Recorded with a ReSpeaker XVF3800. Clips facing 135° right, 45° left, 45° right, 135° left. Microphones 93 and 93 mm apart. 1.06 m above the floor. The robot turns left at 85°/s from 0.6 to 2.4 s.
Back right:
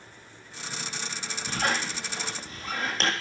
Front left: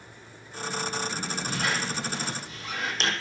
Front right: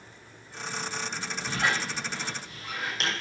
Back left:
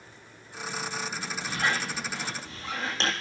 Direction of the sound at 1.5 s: 90° right.